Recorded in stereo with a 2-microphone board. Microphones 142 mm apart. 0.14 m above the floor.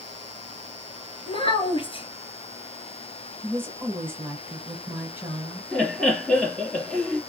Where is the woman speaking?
15° right (ahead or behind), 2.5 m.